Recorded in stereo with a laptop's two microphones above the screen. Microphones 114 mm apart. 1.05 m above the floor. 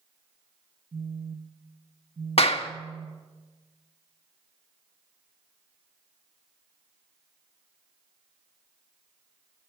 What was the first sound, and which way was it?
A phone buzzing, 70° right (ahead or behind).